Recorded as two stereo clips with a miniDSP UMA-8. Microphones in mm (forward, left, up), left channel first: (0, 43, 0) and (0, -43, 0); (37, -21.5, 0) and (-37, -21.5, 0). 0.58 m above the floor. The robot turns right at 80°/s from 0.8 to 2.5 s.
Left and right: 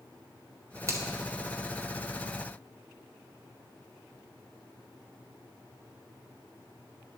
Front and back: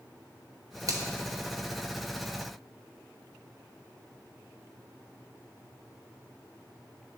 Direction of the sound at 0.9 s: 145° right.